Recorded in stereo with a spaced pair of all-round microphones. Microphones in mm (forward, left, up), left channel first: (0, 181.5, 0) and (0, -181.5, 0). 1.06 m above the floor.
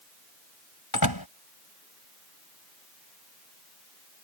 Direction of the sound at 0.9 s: 85° left.